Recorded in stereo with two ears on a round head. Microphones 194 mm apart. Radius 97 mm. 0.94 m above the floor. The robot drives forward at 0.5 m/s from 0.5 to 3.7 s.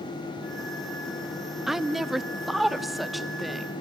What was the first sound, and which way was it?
A woman speaking, centre (ahead or behind).